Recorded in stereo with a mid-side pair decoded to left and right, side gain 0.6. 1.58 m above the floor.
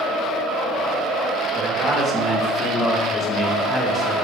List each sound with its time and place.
1.6 s a man speaking: 25° right, 1.1 m